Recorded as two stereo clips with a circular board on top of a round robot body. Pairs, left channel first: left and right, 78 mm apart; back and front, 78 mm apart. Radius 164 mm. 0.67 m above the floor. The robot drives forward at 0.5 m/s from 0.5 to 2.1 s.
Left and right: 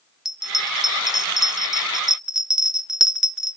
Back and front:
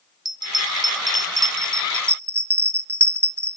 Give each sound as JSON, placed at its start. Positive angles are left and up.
{"t": 0.2, "sound": "a bell", "azimuth_deg": -5, "distance_m": 1.6}